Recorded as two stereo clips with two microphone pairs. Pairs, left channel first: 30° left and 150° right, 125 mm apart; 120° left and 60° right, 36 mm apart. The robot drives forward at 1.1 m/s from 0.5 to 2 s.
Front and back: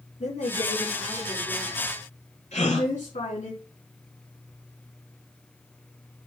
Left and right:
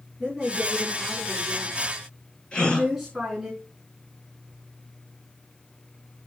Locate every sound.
0.2 s a woman speaking: 20° left, 6 m; by 3.5 s 25° left, 4.5 m
2.5 s a gasp: 55° left, 4.5 m